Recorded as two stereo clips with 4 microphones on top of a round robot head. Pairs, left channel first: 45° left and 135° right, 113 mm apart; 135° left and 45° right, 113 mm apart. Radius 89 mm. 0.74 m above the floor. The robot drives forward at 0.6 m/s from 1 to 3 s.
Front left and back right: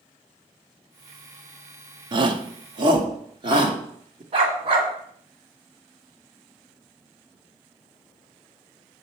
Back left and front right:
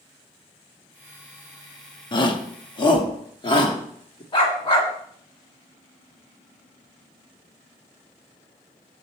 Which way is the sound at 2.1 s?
Straight behind.